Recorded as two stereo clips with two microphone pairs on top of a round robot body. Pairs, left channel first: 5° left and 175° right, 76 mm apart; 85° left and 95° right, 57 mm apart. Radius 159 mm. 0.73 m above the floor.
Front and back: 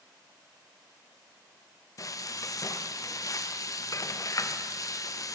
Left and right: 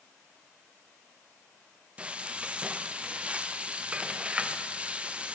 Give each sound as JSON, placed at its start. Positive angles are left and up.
{"t": 2.0, "sound": "frying", "azimuth_deg": -25, "distance_m": 0.7}